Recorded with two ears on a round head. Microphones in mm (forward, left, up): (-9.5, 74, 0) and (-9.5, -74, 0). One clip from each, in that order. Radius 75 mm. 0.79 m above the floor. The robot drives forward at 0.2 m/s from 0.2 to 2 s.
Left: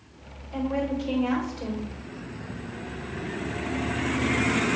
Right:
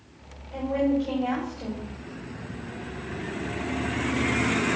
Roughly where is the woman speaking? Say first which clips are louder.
Right 3 dB; left.